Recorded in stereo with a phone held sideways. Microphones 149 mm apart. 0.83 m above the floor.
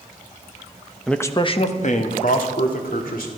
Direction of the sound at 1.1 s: Centre (ahead or behind).